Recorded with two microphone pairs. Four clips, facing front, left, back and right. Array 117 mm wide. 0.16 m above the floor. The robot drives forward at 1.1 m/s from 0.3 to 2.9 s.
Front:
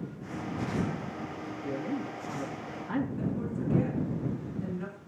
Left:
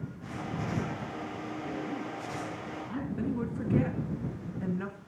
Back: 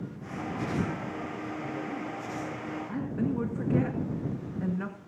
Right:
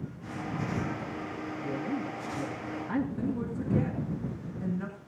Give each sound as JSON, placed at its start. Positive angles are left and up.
{"t": 1.6, "sound": "a man speaking", "azimuth_deg": -30, "distance_m": 3.0}
{"t": 3.2, "sound": "a woman speaking", "azimuth_deg": 160, "distance_m": 1.9}